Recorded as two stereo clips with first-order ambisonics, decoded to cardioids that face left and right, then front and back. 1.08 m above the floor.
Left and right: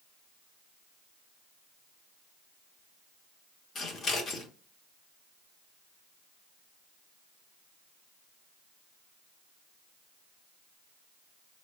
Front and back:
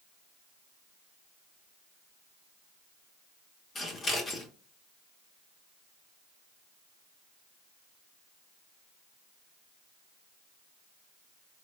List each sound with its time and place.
3.8 s scissors: 50° left, 0.7 m